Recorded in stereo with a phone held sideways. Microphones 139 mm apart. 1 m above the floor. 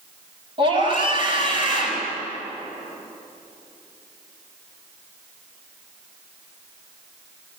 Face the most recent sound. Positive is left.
turn(degrees=-40)  # may be behind; listen again after turning